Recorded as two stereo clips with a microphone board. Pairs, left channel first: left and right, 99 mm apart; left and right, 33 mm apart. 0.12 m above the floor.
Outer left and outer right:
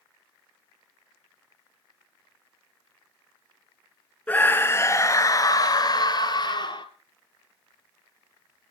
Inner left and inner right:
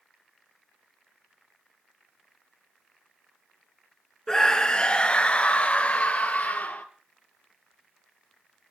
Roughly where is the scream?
Centre.